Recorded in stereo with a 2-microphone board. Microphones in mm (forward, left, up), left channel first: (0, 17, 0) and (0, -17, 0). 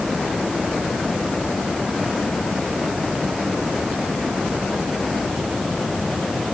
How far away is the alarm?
I don't hear an alarm.